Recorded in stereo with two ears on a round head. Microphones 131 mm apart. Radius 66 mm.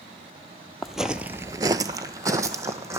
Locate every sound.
0.8 s footsteps: centre (ahead or behind), 0.8 m; by 3.0 s 20° right (ahead or behind), 1.6 m